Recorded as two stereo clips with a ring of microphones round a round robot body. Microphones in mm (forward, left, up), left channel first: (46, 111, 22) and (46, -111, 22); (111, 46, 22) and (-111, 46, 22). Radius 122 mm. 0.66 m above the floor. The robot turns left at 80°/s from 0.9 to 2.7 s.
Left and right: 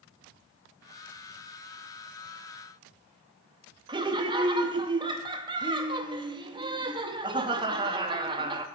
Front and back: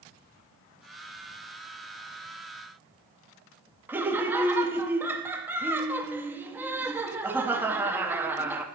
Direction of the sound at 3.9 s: 115° right.